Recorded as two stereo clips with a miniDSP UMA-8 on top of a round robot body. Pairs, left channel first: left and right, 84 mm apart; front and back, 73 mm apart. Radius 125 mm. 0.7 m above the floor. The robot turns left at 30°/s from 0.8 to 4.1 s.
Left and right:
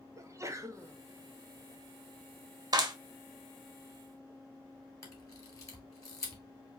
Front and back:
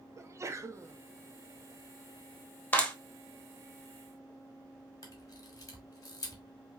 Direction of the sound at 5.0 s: 40° left.